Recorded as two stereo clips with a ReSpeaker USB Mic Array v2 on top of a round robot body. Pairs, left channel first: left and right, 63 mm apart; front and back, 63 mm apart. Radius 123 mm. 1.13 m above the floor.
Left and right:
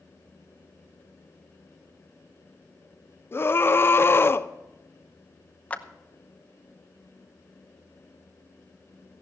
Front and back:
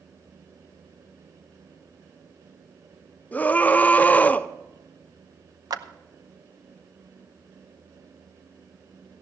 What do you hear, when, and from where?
3.3 s a scream: 55° left, 0.9 m
5.7 s a clap: 160° left, 0.8 m